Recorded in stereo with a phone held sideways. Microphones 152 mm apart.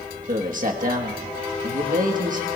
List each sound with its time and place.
0.3 s a man speaking: 55° right (ahead or behind), 1.4 m